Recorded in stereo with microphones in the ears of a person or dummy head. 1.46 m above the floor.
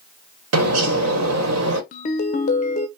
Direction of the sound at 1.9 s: 40° left (ahead or behind).